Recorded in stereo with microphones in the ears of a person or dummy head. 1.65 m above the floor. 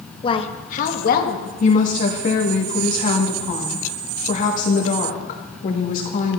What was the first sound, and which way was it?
A woman speaking, 35° left (ahead or behind).